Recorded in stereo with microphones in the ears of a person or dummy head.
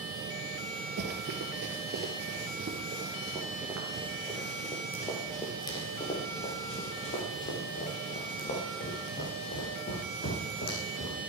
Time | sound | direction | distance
1.0 | running footsteps | 50° right (ahead or behind) | 2.5 m